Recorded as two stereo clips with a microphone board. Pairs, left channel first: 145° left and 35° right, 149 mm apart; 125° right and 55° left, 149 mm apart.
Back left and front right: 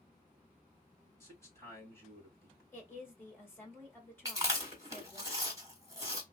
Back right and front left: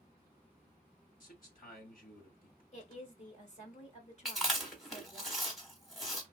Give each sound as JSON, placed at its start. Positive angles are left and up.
{"t": 1.2, "sound": "a man speaking", "azimuth_deg": -145, "distance_m": 2.0}
{"t": 2.7, "sound": "a woman speaking", "azimuth_deg": -145, "distance_m": 2.0}
{"t": 4.2, "sound": "chewing", "azimuth_deg": -30, "distance_m": 1.3}